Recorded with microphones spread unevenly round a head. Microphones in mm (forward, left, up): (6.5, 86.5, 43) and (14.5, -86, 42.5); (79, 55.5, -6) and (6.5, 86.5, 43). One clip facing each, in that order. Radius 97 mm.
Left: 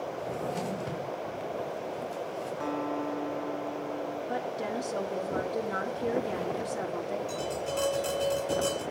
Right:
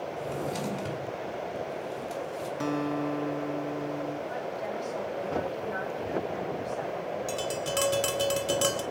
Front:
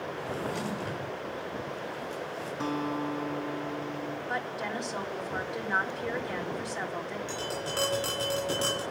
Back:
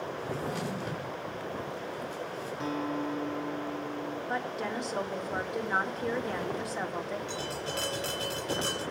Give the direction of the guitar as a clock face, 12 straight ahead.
2 o'clock.